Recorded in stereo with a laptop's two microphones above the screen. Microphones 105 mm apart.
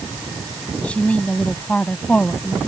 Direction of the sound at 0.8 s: 10° left (ahead or behind).